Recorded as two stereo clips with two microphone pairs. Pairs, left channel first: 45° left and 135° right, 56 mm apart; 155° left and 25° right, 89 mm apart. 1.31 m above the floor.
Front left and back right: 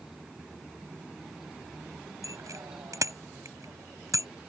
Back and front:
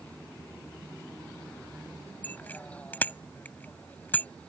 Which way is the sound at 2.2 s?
135° right.